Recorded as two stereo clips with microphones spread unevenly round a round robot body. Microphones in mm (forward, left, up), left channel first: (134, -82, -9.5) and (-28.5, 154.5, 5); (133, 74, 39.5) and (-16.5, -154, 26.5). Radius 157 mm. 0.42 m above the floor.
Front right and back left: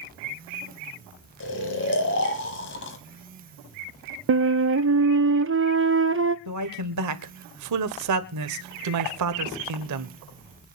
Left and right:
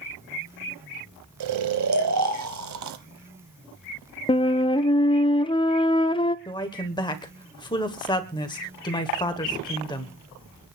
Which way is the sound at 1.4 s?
110° right.